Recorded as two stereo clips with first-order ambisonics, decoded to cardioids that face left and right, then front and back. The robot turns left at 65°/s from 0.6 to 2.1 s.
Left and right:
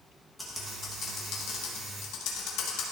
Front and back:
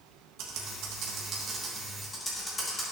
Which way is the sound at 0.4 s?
175° left.